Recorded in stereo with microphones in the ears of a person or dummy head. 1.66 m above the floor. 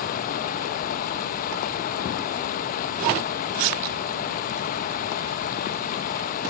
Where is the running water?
50° left (ahead or behind), 1.3 m.